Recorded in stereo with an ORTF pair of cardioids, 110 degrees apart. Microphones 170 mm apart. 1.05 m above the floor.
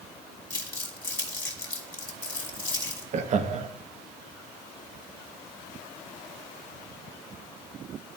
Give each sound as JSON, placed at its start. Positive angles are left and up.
{"t": 0.5, "sound": "crumpling", "azimuth_deg": 15, "distance_m": 2.0}
{"t": 3.1, "sound": "laughter", "azimuth_deg": -50, "distance_m": 0.9}